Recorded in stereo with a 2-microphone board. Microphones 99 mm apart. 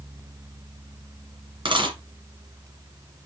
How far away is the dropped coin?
About 2.5 m.